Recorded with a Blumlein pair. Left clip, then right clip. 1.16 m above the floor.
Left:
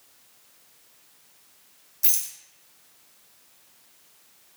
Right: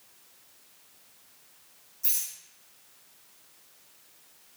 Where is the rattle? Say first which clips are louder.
Left 4 dB; 40° left, 0.9 m.